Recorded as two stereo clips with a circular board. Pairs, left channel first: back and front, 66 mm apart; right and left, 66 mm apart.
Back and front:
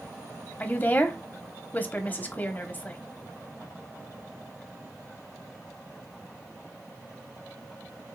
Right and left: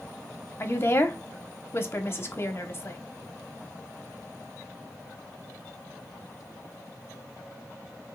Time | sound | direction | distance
0.6 | a woman speaking | 130° right | 1.0 m